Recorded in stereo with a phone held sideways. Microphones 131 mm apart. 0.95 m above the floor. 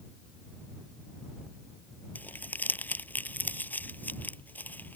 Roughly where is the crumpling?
Centre.